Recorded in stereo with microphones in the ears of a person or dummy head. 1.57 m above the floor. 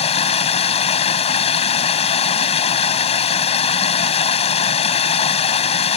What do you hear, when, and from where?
0.0 s running water: 30° left (ahead or behind)